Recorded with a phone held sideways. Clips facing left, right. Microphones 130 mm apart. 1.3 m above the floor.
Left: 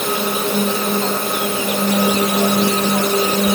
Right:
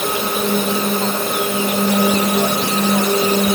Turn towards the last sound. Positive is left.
No sound to turn to.